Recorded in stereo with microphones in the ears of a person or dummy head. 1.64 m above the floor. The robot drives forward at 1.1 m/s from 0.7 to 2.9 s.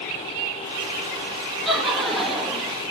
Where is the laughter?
Centre (ahead or behind), 3 m.